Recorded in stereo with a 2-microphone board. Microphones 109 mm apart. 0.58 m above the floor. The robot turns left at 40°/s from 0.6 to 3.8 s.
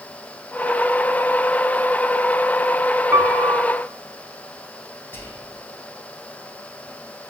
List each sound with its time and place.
3.1 s a piano: 25° right (ahead or behind), 0.7 m; by 3.7 s centre (ahead or behind), 0.7 m
5.1 s whispering: 20° left (ahead or behind), 3 m